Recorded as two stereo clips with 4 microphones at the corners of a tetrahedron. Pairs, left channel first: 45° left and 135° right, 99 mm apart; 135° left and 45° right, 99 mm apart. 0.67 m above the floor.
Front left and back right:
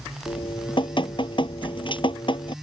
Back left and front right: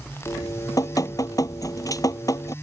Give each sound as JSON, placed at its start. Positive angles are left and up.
{"t": 0.3, "sound": "dripping", "azimuth_deg": 80}